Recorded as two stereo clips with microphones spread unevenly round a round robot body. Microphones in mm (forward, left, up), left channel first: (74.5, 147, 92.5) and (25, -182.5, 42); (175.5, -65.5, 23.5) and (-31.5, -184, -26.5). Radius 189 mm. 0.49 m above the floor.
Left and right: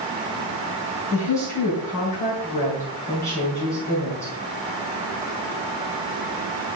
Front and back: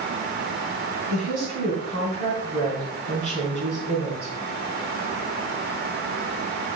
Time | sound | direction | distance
1.1 | a woman speaking | 165° left | 4 m